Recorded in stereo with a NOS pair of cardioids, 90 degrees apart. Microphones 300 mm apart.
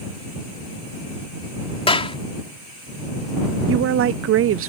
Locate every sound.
1.9 s a clap: 20° left
3.7 s a woman speaking: 50° right